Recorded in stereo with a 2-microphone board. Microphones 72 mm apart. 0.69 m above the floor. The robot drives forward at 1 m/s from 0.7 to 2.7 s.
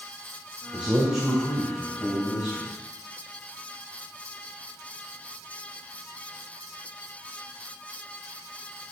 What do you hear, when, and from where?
0.7 s a man speaking: 20° right (ahead or behind), 2.5 m; by 2.7 s 10° right (ahead or behind), 4 m